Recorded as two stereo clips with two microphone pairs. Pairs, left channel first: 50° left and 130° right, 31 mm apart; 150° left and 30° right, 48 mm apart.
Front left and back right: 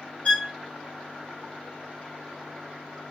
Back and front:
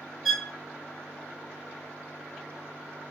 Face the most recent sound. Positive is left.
turn(degrees=60)